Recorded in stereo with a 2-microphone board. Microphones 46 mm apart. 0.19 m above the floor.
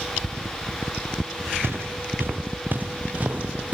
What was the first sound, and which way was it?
Footsteps, 60° right (ahead or behind).